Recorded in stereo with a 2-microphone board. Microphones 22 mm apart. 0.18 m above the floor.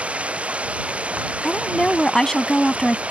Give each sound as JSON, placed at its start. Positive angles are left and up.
{"t": 0.0, "sound": "running water", "side_deg": -90}
{"t": 1.4, "sound": "a woman speaking", "side_deg": 25}